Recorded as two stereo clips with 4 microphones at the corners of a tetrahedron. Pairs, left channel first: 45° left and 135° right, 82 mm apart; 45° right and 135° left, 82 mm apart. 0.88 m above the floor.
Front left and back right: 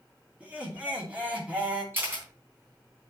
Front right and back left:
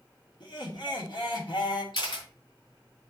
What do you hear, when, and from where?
0.4 s laughter: 65° right, 2.5 m
1.9 s a camera shutter: 70° right, 3 m